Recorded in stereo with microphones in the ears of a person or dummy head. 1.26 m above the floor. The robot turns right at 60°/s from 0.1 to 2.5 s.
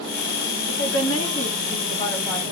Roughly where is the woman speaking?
Left.